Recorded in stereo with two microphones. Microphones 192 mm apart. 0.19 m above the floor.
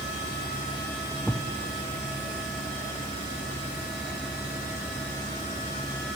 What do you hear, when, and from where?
1.3 s a thud: centre (ahead or behind), 2.5 m